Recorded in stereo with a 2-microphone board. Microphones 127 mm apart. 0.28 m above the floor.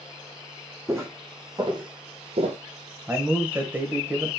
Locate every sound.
0.9 s footsteps: 20° right (ahead or behind), 1.1 m; by 2.6 s 70° right (ahead or behind), 0.6 m
3.1 s a man speaking: 15° right (ahead or behind), 1.0 m